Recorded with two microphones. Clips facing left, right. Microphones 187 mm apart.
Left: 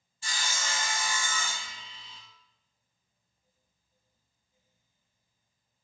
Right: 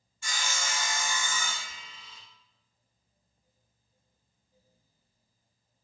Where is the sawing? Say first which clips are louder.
Right 1 dB; 35° left (ahead or behind), 0.7 m.